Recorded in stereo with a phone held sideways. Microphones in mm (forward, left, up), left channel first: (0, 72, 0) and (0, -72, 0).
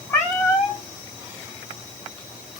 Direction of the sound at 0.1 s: 20° left (ahead or behind).